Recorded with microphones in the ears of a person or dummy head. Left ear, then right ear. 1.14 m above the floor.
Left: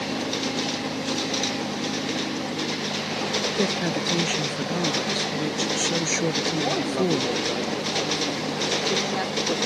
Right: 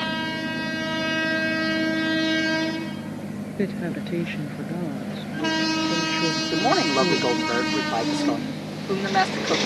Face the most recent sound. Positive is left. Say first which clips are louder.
# right 5 dB
turn(degrees=-55)  # may be behind; listen again after turning